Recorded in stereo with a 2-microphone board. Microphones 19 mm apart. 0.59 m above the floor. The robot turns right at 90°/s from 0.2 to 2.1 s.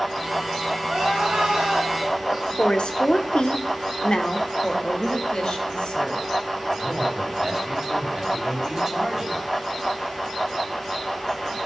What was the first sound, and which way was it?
Crying, 130° right.